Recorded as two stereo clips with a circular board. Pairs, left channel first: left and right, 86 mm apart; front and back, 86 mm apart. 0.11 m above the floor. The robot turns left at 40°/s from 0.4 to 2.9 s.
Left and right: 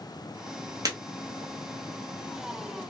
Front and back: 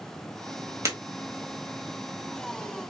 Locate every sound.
0.8 s breaking glass: 130° right, 1.1 m; by 1.0 s 135° right, 1.1 m